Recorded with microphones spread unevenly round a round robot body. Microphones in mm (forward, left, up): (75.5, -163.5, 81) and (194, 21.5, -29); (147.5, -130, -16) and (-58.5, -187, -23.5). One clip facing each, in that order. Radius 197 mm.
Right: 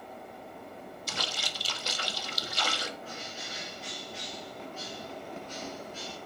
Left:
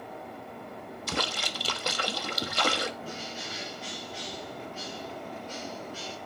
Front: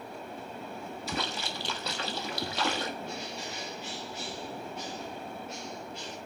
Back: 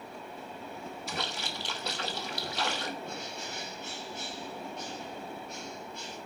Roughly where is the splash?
Ahead left.